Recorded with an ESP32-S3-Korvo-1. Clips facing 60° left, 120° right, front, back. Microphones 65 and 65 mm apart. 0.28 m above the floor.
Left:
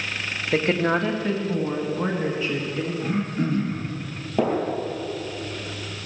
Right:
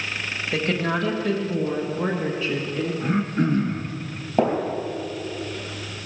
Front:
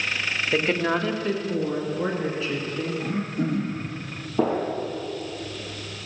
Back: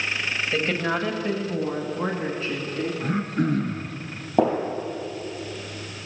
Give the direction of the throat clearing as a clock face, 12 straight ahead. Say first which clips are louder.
Right 4 dB, back 2 dB; 6 o'clock.